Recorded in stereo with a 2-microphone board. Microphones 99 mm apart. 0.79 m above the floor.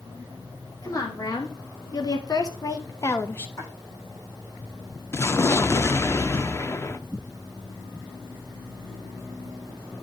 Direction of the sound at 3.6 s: 30° left (ahead or behind).